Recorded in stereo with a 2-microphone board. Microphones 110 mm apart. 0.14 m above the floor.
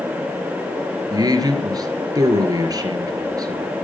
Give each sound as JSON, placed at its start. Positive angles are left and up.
{"t": 1.1, "sound": "a man speaking", "side_deg": -35, "distance_m": 3.0}